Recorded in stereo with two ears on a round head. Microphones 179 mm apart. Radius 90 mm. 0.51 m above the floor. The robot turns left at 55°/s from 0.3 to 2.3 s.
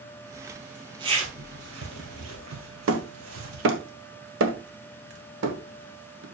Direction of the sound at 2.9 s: 70° right (ahead or behind).